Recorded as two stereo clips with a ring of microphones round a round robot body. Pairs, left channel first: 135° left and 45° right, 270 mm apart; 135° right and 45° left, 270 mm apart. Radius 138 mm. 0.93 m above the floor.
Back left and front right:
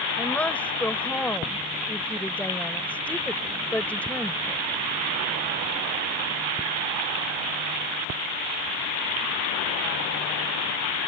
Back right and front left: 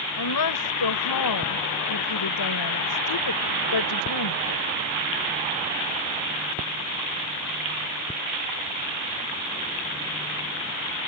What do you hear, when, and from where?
0.2 s a woman speaking: 140° right